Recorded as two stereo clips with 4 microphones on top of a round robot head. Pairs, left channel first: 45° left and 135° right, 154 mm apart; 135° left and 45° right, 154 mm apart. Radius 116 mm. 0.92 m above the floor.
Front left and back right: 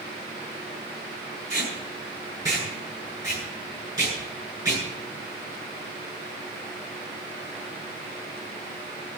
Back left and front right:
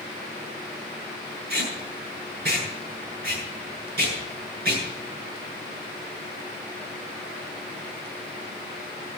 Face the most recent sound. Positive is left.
turn(degrees=-70)